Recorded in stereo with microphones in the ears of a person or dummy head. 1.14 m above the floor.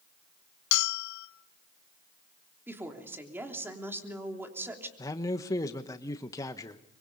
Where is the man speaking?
10° left (ahead or behind), 1.1 m.